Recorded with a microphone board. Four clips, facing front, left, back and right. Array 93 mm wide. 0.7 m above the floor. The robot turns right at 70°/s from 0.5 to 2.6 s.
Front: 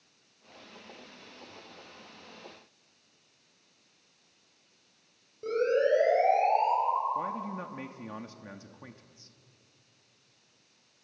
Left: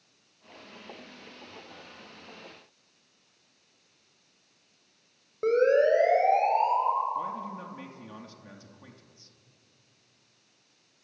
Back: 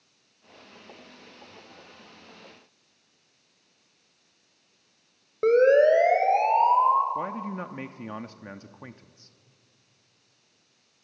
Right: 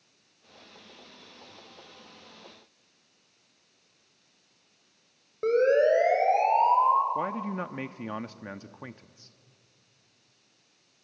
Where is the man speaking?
115° right, 0.8 m.